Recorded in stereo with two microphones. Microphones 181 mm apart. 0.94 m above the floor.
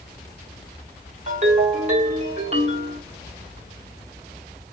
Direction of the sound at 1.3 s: 40° right (ahead or behind).